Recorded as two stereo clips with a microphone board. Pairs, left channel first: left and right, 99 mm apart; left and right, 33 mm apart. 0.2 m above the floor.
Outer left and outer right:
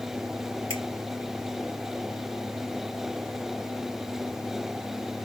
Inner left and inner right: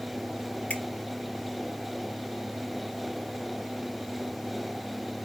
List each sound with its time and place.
0.7 s a finger snap: 55° left (ahead or behind), 2 m